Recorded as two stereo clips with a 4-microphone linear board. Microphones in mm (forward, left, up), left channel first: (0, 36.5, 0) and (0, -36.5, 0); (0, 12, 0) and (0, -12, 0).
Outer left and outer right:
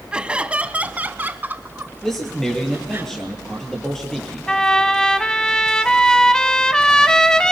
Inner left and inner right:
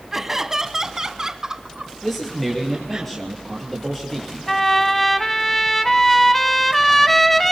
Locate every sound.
0.1 s laughter: 10° right (ahead or behind), 1.0 m; by 3.0 s 30° right (ahead or behind), 2.5 m
2.0 s a man speaking: 5° left (ahead or behind), 5 m
4.5 s a trumpet: 10° left (ahead or behind), 1.0 m